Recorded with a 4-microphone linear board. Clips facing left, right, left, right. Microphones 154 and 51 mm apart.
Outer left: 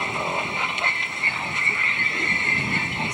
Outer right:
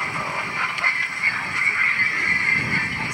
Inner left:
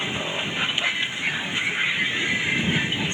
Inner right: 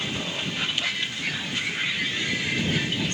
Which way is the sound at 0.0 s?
20° left (ahead or behind).